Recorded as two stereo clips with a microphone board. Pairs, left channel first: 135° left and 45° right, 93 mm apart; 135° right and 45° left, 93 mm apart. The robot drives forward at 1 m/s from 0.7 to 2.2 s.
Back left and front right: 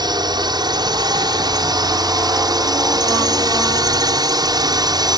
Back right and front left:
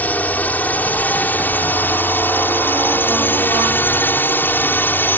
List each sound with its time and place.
0.0 s a drone: 65° right; by 5.2 s 70° right